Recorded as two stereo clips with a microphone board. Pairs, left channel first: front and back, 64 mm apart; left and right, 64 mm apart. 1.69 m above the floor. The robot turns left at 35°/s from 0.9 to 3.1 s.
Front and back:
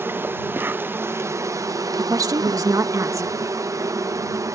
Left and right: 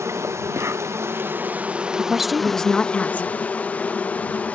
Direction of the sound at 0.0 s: 130° right.